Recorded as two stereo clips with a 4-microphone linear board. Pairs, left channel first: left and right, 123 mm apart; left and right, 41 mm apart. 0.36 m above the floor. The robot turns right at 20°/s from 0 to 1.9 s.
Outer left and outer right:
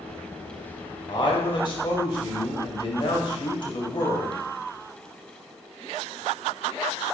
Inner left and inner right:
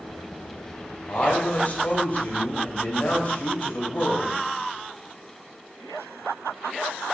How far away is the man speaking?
About 2 m.